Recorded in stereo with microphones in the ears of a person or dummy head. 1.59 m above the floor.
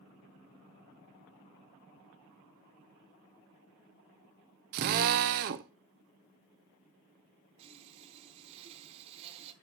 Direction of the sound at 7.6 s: 30° right (ahead or behind).